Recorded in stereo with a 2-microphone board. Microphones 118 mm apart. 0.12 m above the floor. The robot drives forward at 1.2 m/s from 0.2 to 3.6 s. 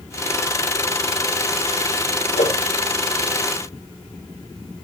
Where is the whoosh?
85° left, 3.5 m; by 2.5 s 80° left, 3.5 m.